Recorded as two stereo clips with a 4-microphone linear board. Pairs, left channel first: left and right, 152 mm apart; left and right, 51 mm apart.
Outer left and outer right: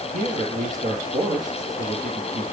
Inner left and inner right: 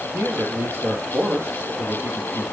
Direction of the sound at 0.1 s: 60° right (ahead or behind).